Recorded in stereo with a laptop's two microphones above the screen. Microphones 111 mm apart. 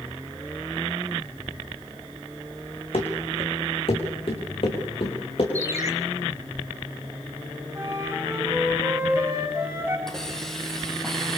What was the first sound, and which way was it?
Running footsteps, 55° left (ahead or behind).